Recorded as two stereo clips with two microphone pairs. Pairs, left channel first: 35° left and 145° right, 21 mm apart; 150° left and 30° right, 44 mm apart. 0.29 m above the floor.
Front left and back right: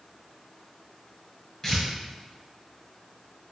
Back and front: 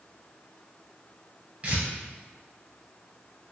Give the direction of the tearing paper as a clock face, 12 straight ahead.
1 o'clock.